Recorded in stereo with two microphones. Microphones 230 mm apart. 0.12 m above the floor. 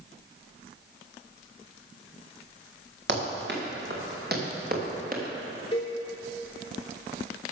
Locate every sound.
3.1 s running footsteps: 50° right (ahead or behind), 4.5 m; by 5.2 s 40° right (ahead or behind), 4 m
5.7 s a cowbell: 20° left (ahead or behind), 4 m